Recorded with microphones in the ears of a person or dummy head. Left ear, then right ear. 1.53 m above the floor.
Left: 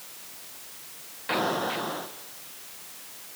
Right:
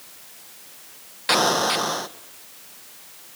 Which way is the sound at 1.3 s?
80° right.